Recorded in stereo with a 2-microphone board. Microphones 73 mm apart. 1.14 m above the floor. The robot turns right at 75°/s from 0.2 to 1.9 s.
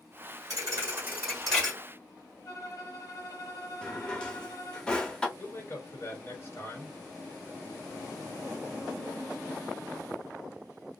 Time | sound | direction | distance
0.5 | a thud | 70° right | 1.6 m
2.5 | a violin | 50° left (ahead or behind) | 1.5 m
3.8 | a drawer | 10° left (ahead or behind) | 0.7 m
5.4 | a man speaking | 30° left (ahead or behind) | 1.5 m